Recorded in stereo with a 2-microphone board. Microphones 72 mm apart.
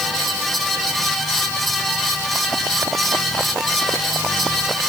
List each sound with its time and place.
Only background noise.